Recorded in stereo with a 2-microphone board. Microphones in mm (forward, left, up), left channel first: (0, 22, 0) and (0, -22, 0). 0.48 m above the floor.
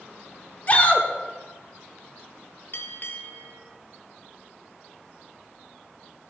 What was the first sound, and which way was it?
A shout, 35° left (ahead or behind).